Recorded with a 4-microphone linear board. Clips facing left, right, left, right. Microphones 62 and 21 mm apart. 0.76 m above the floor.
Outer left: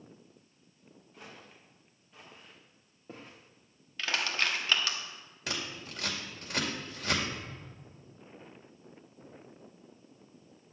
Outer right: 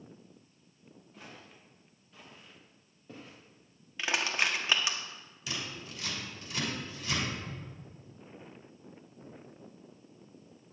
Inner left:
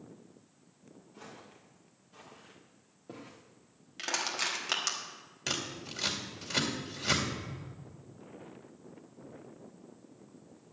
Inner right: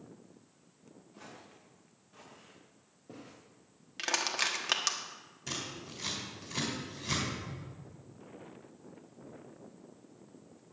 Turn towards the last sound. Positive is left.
turn(degrees=-15)  # may be behind; listen again after turning